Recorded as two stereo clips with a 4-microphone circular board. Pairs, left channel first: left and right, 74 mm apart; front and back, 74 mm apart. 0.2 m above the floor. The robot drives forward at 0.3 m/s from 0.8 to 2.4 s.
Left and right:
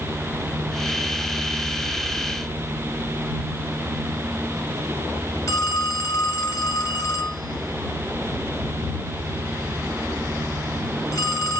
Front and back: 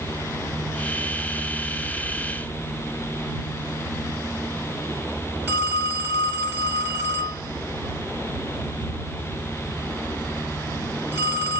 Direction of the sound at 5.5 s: 125° left.